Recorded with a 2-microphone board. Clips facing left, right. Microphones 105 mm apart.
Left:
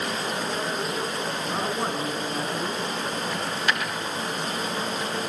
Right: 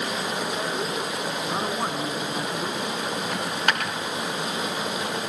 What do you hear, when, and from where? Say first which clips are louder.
0.0 s running water: even; 10° right (ahead or behind), 3.5 m
1.4 s a man speaking: even; 10° right (ahead or behind), 3.5 m
3.3 s a dropped coin: right 2 dB; 55° right (ahead or behind), 4.5 m